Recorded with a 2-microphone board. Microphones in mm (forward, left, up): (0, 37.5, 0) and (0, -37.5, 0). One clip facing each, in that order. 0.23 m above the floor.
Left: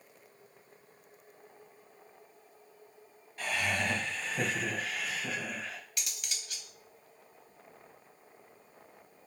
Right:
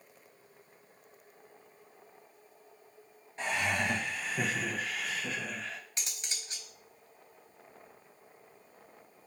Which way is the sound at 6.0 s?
30° right (ahead or behind).